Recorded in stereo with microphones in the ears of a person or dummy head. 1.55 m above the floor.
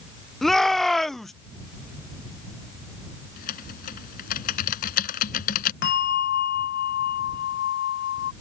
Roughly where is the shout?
Centre.